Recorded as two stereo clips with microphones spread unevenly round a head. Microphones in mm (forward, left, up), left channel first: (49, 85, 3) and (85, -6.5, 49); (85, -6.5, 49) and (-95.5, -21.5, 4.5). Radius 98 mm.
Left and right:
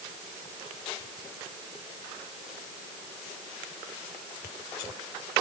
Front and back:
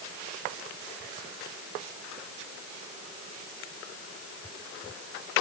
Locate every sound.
Only background noise.